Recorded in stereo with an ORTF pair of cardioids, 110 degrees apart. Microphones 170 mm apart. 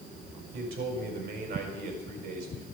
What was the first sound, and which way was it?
A man speaking, 70° right.